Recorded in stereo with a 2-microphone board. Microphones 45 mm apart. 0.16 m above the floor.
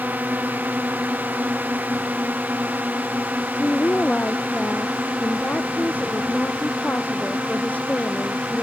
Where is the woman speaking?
40° left (ahead or behind).